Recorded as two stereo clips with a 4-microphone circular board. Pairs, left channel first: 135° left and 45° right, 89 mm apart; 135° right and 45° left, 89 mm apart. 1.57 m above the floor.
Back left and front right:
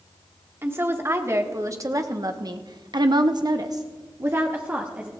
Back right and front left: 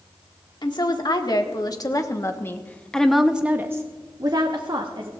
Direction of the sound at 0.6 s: 105° right.